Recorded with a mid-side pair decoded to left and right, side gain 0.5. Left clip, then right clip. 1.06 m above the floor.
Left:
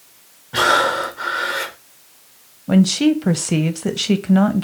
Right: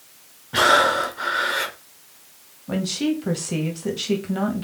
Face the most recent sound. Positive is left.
turn(degrees=45)